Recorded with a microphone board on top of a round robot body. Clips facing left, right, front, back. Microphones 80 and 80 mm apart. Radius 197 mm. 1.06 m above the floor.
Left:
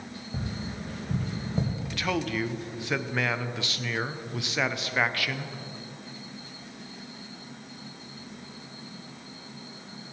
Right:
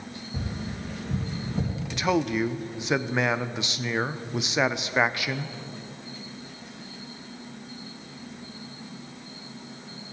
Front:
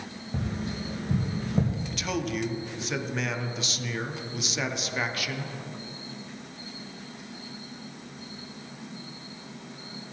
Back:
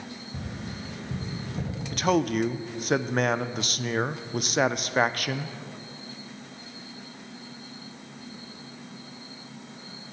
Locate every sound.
0.3 s tapping: 40° left, 1.9 m
1.9 s a man speaking: 155° right, 0.6 m